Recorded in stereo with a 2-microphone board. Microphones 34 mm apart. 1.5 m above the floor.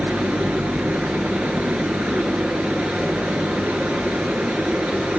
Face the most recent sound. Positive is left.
turn(degrees=-45)  # may be behind; listen again after turning